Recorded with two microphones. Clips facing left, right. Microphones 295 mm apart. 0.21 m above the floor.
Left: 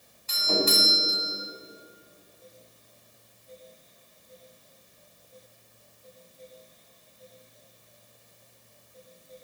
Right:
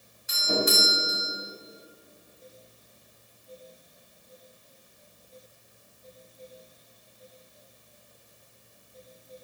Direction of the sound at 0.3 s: 15° right (ahead or behind).